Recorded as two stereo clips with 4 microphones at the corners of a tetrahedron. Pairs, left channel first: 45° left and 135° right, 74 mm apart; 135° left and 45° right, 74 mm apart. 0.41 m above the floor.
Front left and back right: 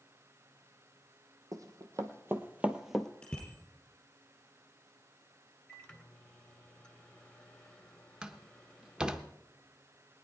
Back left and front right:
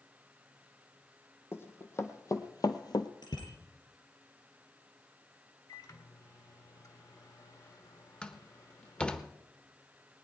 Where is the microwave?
120° left, 1.5 m.